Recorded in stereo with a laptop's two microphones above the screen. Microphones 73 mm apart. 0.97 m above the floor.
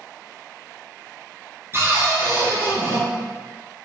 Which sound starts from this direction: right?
A cupboard door, at 1.7 s.